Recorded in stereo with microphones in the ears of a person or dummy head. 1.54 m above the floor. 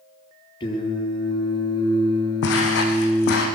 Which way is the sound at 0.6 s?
25° left (ahead or behind).